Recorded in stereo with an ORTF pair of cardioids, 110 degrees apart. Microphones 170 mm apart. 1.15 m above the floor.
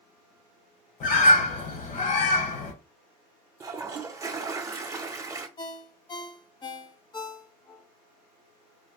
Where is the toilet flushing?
20° right, 0.7 m.